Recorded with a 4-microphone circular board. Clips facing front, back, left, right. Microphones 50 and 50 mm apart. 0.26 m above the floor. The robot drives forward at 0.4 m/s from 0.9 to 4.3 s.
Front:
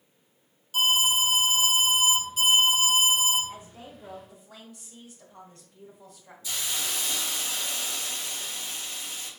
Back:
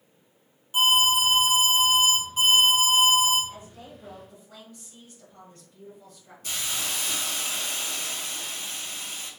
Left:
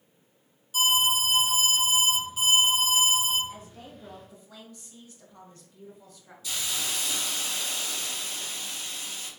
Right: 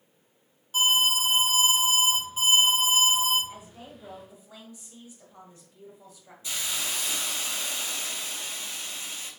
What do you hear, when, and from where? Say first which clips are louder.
0.7 s an alarm: back 3 dB, right 1 dB; 115° right, 1.5 m; by 3.4 s 145° right, 2 m
3.5 s a woman speaking: even, left 1 dB; 45° right, 1.3 m; by 6.3 s 70° right, 1.3 m
6.4 s a hiss: back 1 dB, even; 145° right, 1.6 m